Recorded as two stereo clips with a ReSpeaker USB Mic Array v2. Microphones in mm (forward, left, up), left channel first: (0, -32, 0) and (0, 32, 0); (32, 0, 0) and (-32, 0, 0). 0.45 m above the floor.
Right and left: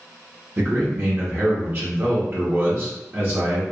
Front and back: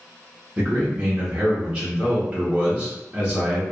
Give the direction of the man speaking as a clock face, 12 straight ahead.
8 o'clock.